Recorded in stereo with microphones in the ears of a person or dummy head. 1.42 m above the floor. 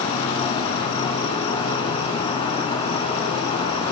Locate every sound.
0.0 s an insect: 35° left (ahead or behind), 2 m